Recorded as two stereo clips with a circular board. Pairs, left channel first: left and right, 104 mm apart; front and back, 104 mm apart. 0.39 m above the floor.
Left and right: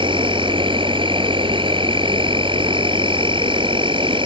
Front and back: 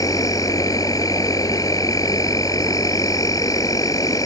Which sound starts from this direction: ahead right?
An insect, at 0.0 s.